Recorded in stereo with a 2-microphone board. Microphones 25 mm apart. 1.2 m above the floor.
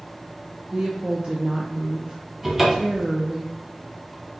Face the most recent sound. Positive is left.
turn(degrees=-15)  # may be behind; listen again after turning